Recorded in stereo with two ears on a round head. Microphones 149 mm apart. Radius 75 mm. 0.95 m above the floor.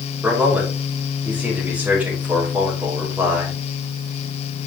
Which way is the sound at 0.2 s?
10° right (ahead or behind).